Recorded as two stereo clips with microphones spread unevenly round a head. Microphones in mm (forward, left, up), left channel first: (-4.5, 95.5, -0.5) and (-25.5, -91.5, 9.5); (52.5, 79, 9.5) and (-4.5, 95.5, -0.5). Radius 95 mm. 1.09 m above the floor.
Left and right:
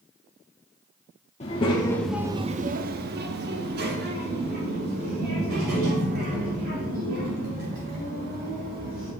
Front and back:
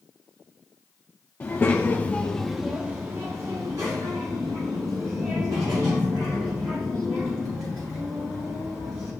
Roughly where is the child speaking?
Ahead left.